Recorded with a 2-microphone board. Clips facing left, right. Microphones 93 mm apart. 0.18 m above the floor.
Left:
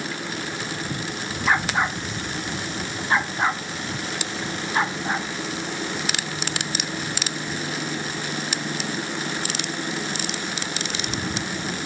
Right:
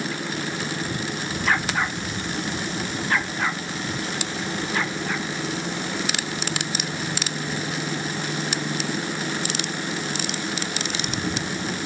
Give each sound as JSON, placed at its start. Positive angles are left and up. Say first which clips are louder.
{"t": 1.5, "sound": "a dog barking", "louder": "left 2 dB", "side_deg": 15}